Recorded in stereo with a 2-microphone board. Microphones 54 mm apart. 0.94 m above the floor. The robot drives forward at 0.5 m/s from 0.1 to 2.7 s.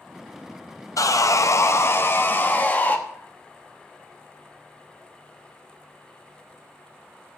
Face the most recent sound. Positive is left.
turn(degrees=30)  # may be behind; listen again after turning